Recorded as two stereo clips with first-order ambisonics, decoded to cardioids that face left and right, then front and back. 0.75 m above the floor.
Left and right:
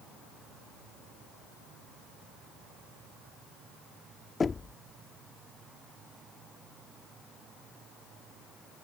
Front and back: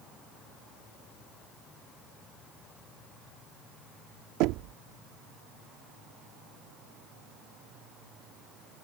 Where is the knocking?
165° left.